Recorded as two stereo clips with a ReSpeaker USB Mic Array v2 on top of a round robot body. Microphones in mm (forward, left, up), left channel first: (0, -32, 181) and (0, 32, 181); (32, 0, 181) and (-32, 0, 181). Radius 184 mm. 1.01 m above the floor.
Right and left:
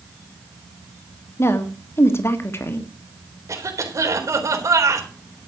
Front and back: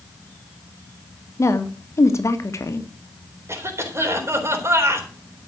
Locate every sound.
1.4 s a woman speaking: 45° right, 2.5 m
3.5 s a cough: 130° left, 4 m